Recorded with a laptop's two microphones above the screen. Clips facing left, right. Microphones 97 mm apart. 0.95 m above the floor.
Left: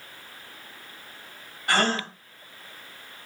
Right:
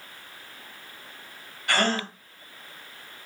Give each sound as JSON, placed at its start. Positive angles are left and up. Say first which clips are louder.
{"t": 1.7, "sound": "a gasp", "louder": "left 1 dB", "side_deg": 30, "distance_m": 1.7}